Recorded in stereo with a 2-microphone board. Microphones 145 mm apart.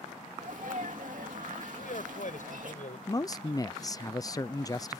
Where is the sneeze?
65° right (ahead or behind).